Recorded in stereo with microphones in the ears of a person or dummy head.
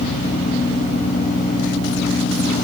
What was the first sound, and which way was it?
Only background noise.